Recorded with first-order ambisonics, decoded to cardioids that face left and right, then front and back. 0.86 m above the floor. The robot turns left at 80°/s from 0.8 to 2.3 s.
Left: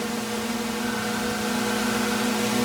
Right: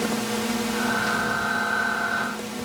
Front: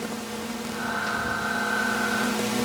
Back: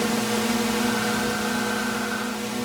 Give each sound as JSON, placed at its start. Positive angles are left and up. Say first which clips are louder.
{"t": 0.0, "sound": "a drone", "louder": "right 2 dB, back 9 dB", "azimuth_deg": -170}